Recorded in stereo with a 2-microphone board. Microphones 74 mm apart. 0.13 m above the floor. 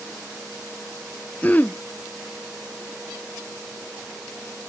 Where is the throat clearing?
20° left (ahead or behind), 0.5 m.